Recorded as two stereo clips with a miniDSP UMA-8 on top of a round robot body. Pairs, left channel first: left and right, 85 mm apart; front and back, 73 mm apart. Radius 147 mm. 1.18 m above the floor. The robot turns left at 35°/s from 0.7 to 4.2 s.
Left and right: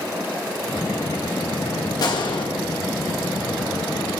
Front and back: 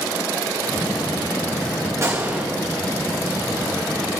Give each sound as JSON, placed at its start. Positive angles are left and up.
{"t": 2.0, "sound": "a gunshot", "azimuth_deg": 130, "distance_m": 2.5}